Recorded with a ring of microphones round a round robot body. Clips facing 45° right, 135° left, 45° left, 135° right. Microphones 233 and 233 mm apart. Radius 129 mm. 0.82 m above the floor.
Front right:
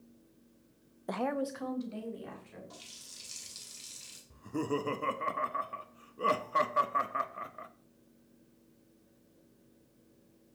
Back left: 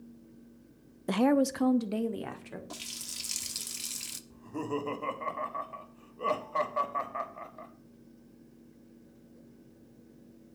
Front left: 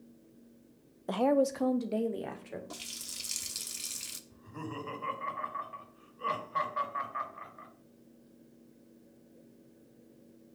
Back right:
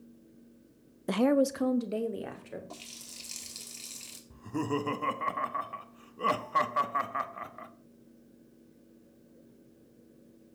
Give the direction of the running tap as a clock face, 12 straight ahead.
8 o'clock.